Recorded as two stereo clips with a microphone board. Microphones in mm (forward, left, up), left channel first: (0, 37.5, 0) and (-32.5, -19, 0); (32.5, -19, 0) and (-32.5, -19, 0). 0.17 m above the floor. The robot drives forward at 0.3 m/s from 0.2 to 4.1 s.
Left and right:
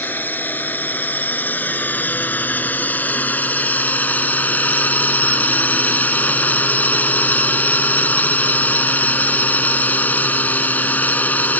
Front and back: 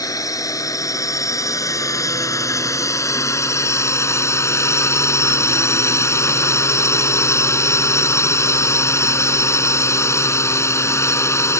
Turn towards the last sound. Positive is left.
turn(degrees=5)